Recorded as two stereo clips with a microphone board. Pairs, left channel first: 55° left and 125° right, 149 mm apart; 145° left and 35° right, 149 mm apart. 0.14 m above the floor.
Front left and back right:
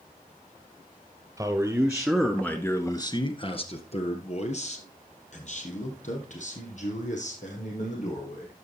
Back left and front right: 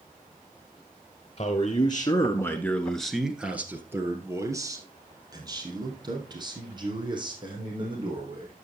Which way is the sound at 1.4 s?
175° left.